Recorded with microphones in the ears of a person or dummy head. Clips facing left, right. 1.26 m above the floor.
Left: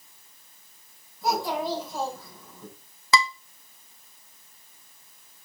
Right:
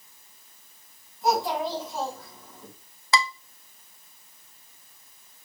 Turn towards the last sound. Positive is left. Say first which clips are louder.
# left 2 dB
turn(degrees=65)  # may be behind; listen again after turning